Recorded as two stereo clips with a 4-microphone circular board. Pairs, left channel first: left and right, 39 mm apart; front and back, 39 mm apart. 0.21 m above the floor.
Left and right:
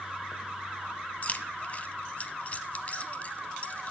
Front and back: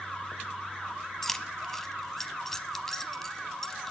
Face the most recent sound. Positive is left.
turn(degrees=75)